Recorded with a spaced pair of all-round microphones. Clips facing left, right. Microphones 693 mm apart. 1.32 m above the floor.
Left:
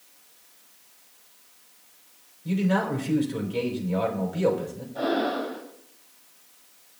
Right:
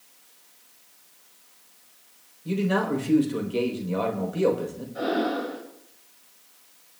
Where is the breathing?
45° right (ahead or behind), 5.5 m.